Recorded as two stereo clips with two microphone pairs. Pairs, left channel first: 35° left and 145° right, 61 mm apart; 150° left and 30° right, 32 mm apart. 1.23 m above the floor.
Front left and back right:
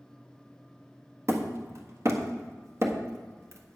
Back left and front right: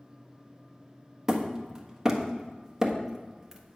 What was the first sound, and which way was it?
Hammering, 105° right.